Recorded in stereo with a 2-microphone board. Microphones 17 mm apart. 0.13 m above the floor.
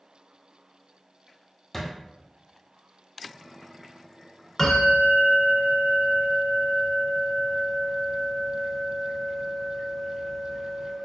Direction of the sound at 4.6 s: 30° left (ahead or behind).